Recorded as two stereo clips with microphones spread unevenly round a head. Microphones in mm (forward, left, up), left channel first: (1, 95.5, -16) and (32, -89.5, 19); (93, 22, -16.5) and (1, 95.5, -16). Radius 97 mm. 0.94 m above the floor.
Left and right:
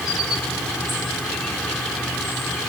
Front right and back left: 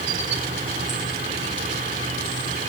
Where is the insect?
175° right.